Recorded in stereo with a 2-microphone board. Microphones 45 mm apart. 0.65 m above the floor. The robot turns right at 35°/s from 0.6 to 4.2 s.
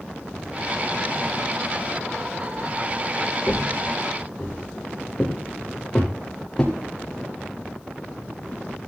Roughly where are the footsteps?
Left.